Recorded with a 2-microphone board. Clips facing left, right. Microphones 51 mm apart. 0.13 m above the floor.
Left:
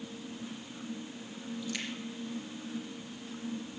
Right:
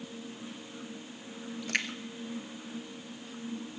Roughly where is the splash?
Right.